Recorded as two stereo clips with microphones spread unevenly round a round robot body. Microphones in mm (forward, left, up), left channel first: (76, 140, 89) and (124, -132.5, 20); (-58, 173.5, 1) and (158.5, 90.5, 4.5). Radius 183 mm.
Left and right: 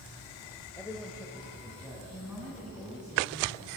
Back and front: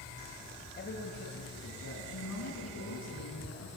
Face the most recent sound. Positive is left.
turn(degrees=-165)